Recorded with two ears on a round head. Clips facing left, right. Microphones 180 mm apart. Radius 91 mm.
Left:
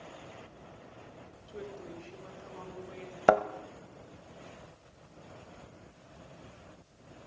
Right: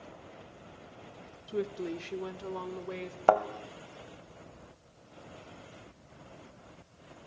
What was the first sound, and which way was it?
A woman speaking, 65° right (ahead or behind).